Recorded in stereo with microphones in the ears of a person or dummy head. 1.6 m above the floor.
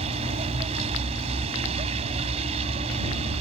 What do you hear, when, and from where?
0.0 s a vehicle: 35° right (ahead or behind)